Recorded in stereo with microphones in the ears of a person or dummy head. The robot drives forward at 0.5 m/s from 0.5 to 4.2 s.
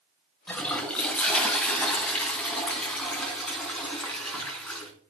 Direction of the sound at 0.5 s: Centre (ahead or behind).